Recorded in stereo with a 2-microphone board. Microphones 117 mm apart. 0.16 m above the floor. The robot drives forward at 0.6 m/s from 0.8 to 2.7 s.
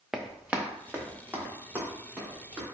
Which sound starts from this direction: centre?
Running footsteps, at 0.1 s.